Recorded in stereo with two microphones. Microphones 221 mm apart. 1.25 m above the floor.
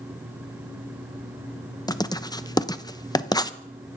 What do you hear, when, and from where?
1.9 s writing: 15° left (ahead or behind), 0.7 m